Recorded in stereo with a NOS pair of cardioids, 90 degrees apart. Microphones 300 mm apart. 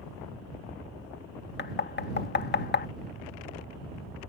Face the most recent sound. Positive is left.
turn(degrees=35)